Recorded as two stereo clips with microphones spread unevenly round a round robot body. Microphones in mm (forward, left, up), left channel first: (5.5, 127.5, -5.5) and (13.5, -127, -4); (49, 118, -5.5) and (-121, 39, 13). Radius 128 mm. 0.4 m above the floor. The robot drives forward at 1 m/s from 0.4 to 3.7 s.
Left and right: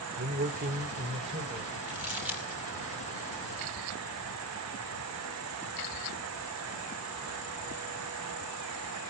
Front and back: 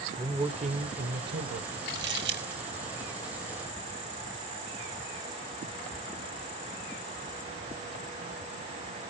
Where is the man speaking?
85° right, 1.0 m; by 1.8 s 160° right, 1.7 m.